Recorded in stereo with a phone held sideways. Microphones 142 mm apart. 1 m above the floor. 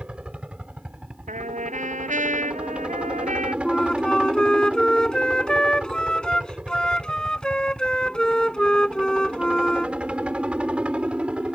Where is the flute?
5° left (ahead or behind).